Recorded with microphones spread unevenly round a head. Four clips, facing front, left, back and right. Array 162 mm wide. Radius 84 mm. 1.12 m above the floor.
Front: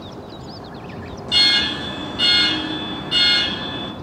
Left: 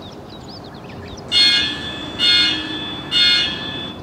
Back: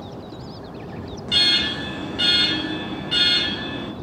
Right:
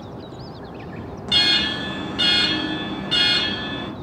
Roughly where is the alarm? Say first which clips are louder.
Left 1 dB, front 3 dB; ahead right.